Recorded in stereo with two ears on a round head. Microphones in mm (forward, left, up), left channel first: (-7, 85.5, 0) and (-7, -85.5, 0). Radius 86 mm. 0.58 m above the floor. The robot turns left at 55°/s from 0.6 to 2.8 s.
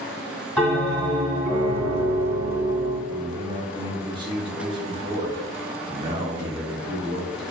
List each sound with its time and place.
0.6 s a bell: 10° left, 1.8 m; by 3.0 s 115° right, 1.8 m
3.1 s a man speaking: 25° right (ahead or behind), 0.9 m